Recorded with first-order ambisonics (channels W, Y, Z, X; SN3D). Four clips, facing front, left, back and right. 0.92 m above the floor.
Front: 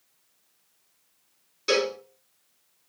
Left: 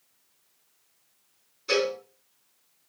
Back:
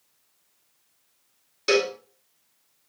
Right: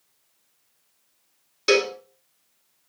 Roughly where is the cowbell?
Right.